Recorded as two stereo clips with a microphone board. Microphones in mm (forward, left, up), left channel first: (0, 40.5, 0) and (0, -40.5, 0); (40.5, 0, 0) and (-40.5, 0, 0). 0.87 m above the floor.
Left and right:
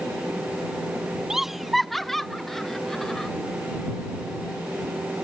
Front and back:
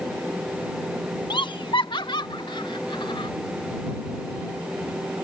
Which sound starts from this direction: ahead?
Laughter, at 1.3 s.